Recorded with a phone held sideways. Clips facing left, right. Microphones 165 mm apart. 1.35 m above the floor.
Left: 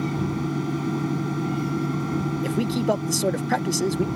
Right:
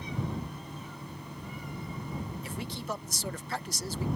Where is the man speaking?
65° left (ahead or behind).